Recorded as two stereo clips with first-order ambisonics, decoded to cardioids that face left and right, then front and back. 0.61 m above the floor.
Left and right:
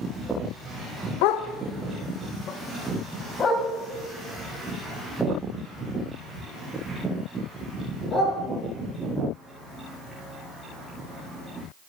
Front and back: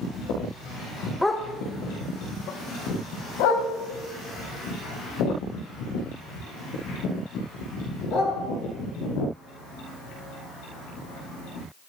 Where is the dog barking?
85° left, 0.5 m; by 8.3 s 5° left, 3.5 m.